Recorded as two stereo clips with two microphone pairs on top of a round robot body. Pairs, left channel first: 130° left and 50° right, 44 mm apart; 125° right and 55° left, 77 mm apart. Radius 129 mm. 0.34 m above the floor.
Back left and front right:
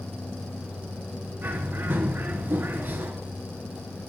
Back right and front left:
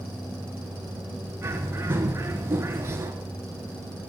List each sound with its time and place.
1.4 s a bird: 5° right, 1.1 m